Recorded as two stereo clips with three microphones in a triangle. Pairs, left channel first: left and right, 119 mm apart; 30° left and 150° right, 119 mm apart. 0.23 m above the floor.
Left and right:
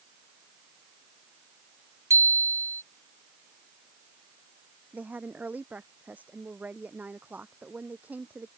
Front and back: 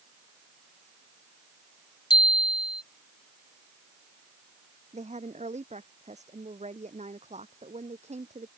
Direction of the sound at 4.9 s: 165° right.